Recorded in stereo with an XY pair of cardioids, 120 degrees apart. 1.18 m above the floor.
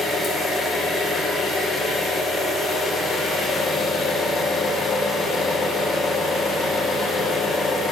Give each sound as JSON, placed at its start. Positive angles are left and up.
{"t": 0.0, "sound": "an engine running", "azimuth_deg": 45, "distance_m": 3.5}